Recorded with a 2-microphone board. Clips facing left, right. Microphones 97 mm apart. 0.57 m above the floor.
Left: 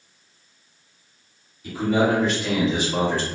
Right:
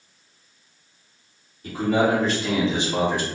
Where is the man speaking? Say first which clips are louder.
Even; 45° right (ahead or behind), 1.5 m; by 3.3 s 15° right (ahead or behind), 1.2 m.